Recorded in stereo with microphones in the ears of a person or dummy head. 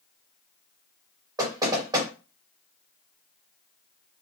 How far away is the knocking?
About 1.7 m.